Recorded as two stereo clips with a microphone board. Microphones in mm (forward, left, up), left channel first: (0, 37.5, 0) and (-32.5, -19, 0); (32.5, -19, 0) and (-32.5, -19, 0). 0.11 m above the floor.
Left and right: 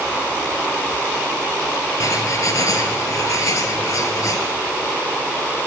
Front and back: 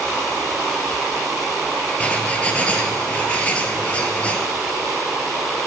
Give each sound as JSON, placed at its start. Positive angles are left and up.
{"t": 2.0, "sound": "writing", "azimuth_deg": 65, "distance_m": 0.7}